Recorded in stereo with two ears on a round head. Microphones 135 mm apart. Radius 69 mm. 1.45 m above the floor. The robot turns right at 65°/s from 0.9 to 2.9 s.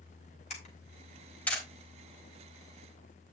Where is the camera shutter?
50° left (ahead or behind), 4.5 m; by 1.6 s centre (ahead or behind), 4.5 m.